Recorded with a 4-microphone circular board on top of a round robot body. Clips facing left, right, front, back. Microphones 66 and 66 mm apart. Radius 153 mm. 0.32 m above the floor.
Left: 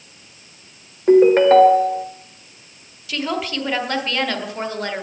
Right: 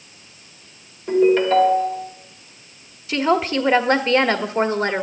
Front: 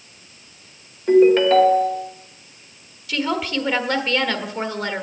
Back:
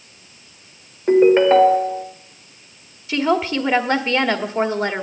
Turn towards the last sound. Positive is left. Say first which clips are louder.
# right 6 dB, back 4 dB
turn(degrees=-130)